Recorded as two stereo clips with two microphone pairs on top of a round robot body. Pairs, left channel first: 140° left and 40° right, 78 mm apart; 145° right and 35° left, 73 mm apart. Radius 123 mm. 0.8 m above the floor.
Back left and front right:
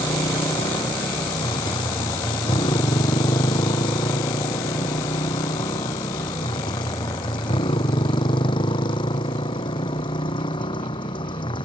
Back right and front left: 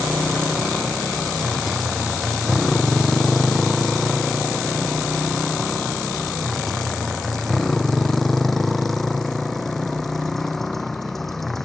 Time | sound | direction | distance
0.0 | a motorcycle | 125° left | ?